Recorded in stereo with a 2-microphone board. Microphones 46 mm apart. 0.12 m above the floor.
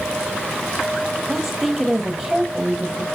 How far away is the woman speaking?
About 3 m.